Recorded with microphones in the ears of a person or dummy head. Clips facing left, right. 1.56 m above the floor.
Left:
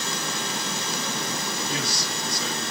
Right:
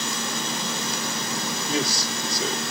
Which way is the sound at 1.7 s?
65° right (ahead or behind).